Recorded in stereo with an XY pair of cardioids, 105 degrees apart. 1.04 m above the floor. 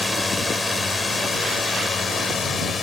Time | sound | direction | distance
0.0 | a drone | 20° left | ?